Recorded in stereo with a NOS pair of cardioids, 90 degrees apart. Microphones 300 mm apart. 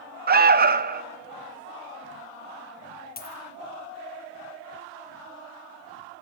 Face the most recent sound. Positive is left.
turn(degrees=30)